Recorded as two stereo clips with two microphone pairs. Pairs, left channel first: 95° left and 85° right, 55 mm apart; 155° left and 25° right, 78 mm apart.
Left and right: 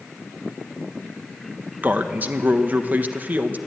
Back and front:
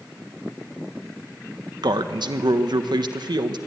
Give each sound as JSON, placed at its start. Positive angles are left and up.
{"t": 1.8, "sound": "a man speaking", "azimuth_deg": -35, "distance_m": 1.3}